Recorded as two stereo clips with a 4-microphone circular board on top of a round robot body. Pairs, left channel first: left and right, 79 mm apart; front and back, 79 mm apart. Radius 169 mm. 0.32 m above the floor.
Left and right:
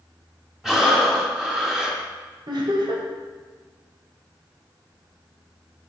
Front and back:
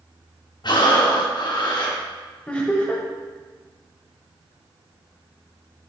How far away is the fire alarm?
I don't hear a fire alarm.